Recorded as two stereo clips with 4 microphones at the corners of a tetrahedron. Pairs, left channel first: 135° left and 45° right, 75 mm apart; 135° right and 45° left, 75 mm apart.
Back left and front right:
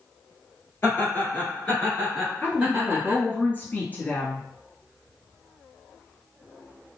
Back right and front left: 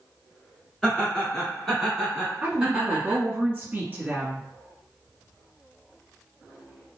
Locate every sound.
0.8 s laughter: 150° left, 1.5 m; by 3.2 s 20° right, 1.4 m
2.4 s a woman speaking: 95° left, 1.3 m